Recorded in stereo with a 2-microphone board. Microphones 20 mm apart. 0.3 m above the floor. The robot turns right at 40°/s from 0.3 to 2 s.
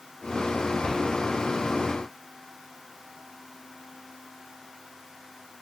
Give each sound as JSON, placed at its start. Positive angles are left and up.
{"t": 0.8, "sound": "a cupboard door", "side_deg": 40, "distance_m": 0.5}